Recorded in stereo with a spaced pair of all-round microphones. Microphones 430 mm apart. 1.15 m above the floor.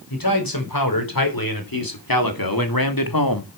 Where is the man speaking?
55° left (ahead or behind), 5.5 m.